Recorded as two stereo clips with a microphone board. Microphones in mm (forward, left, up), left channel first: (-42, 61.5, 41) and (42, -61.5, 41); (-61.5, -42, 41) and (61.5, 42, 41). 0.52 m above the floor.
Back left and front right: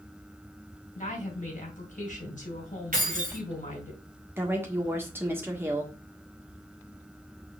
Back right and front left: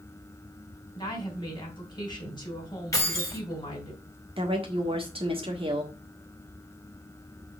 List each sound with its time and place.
0.9 s a woman speaking: 155° left, 3.5 m
2.9 s keys jangling: 80° right, 2.5 m
4.4 s a woman speaking: 15° left, 1.5 m